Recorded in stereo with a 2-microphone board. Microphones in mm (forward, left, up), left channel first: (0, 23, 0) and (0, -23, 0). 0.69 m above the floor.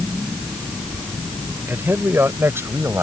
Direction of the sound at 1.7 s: 55° right (ahead or behind).